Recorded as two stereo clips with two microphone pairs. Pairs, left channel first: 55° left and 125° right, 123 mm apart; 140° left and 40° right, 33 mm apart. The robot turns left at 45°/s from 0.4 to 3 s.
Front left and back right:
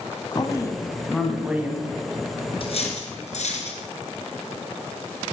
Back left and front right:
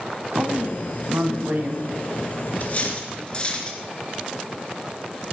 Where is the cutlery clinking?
100° left, 2.5 m; by 3.8 s 80° left, 2.5 m.